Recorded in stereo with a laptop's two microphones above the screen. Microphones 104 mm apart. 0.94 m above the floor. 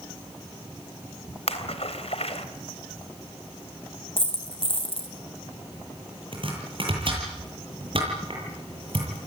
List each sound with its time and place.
1.5 s a splash: 75° left (ahead or behind), 3 m
4.2 s a dropped coin: 55° left (ahead or behind), 3 m
6.3 s chopping: 55° right (ahead or behind), 9.5 m